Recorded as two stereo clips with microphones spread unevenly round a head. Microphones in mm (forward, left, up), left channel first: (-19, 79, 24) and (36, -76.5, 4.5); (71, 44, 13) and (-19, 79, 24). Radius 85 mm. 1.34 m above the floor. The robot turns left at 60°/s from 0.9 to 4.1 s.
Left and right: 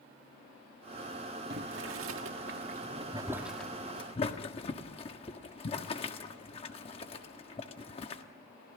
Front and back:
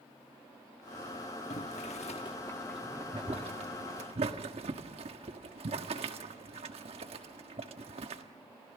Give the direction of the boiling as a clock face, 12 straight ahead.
1 o'clock.